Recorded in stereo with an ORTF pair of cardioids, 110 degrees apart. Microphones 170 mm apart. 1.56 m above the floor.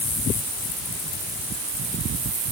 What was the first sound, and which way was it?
Only background noise.